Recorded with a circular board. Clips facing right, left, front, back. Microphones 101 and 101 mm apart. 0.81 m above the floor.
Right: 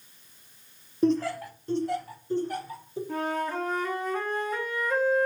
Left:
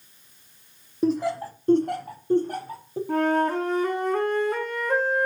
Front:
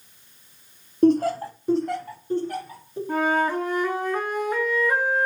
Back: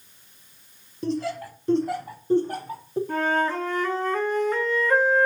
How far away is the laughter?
About 0.7 m.